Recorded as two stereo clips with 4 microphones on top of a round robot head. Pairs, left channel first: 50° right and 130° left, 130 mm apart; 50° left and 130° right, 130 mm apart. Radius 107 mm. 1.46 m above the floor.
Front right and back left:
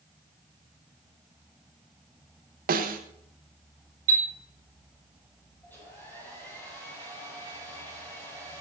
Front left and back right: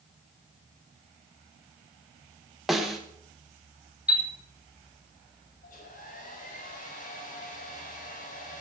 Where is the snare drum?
140° left, 1.5 m.